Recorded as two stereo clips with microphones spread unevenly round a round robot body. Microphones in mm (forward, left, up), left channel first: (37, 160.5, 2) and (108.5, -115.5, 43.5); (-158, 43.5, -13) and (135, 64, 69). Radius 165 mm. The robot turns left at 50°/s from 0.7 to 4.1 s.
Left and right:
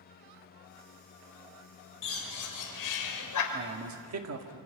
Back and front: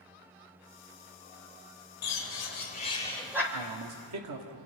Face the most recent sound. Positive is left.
turn(degrees=-45)